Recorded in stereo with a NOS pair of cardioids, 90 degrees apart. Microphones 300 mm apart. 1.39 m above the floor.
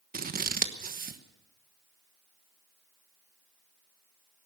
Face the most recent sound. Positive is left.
turn(degrees=-30)